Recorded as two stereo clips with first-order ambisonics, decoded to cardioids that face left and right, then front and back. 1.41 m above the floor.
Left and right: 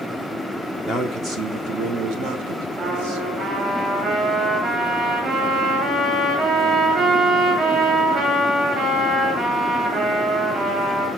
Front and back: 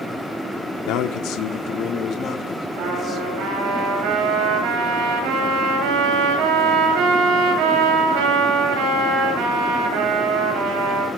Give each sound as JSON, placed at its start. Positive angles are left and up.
{"t": 0.9, "sound": "a man speaking", "azimuth_deg": -10, "distance_m": 1.1}
{"t": 2.8, "sound": "a trumpet", "azimuth_deg": -155, "distance_m": 8.0}